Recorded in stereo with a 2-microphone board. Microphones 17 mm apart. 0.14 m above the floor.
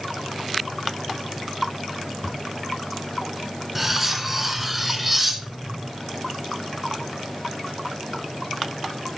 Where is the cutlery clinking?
10° right (ahead or behind), 1.0 m.